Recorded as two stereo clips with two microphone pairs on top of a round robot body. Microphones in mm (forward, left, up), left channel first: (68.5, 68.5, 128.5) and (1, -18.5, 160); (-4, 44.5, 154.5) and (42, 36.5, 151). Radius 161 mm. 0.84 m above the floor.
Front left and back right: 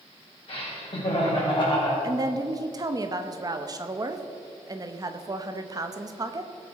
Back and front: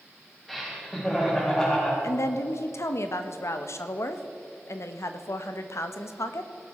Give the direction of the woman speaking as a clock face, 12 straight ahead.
6 o'clock.